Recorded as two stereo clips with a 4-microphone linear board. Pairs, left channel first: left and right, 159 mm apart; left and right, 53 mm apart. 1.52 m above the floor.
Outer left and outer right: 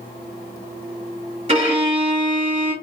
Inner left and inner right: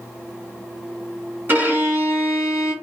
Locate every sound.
1.5 s a violin: 40° right (ahead or behind), 1.5 m